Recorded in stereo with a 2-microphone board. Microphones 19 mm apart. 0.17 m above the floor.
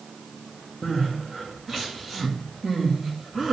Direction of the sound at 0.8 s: 25° right (ahead or behind).